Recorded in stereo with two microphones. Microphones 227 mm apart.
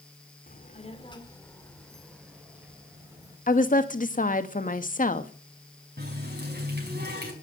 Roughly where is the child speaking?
Left.